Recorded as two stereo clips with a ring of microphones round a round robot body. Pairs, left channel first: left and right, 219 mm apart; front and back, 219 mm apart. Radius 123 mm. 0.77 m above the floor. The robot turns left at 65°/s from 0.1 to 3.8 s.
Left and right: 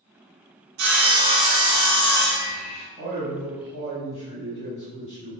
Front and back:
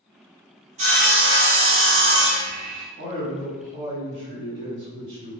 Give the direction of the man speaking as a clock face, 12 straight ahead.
5 o'clock.